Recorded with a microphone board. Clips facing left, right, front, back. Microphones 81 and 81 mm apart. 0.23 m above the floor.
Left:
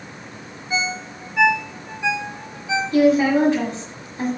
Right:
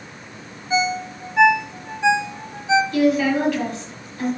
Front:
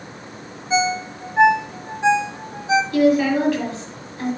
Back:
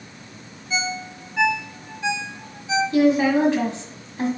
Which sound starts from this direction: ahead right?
A ringtone, at 0.7 s.